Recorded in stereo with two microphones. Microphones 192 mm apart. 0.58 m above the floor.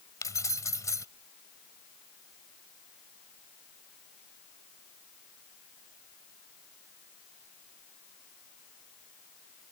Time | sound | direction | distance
0.2 | keys jangling | 15° left (ahead or behind) | ?